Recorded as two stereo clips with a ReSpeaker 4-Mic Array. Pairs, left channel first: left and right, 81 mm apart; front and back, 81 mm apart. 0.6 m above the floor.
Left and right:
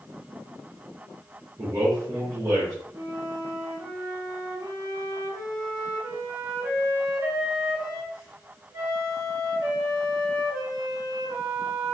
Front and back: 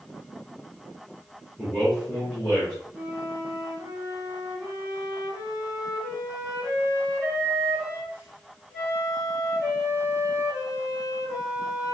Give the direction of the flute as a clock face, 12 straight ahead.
3 o'clock.